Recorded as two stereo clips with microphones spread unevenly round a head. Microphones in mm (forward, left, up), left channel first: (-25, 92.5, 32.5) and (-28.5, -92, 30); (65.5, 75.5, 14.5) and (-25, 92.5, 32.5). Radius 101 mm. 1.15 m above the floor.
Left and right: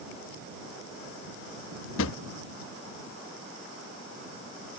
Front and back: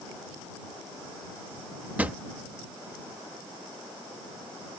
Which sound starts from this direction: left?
A drawer, at 2.0 s.